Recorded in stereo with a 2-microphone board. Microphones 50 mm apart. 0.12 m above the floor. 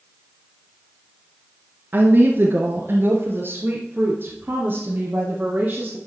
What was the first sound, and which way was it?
A woman speaking, 50° right (ahead or behind).